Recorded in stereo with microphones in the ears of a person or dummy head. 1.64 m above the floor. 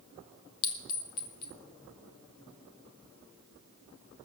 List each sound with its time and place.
0.6 s a clink: 25° left (ahead or behind), 0.8 m